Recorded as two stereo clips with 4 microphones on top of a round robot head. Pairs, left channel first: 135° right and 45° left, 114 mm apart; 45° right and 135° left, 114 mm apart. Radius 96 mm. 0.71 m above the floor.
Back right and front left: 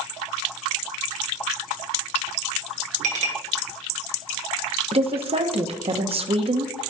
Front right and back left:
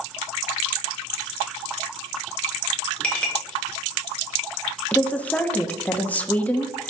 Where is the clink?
35° left, 2 m.